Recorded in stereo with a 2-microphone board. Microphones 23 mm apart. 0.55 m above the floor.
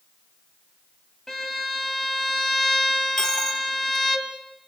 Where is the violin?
15° left (ahead or behind), 2.0 m.